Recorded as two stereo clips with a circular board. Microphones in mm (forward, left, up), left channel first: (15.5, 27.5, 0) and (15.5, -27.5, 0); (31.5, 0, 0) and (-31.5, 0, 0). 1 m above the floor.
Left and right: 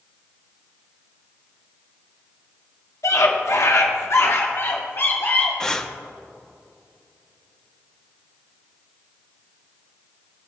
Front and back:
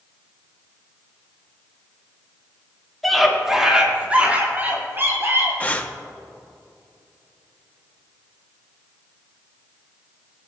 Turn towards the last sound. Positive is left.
turn(degrees=30)